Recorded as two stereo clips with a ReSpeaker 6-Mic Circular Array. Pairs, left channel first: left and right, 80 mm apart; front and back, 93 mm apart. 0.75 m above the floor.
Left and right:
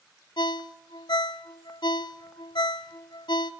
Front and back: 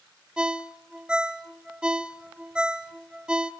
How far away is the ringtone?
About 0.7 m.